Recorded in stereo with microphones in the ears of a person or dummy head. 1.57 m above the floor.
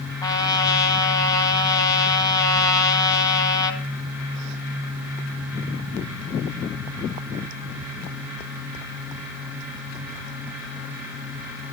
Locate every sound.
0.2 s a trumpet: 20° left (ahead or behind), 2 m